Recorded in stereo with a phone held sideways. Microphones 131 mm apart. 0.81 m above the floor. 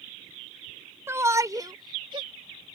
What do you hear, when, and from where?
1.1 s a shout: 20° right (ahead or behind); by 2.3 s 40° right (ahead or behind)